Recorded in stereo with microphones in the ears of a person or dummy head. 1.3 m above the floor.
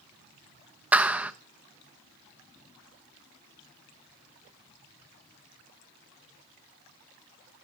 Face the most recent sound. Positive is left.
turn(degrees=0)  # may be behind; listen again after turning